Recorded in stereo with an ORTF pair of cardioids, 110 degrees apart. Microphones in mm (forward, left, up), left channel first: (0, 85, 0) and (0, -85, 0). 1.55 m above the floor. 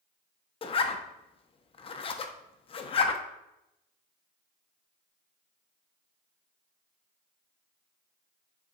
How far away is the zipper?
About 0.7 m.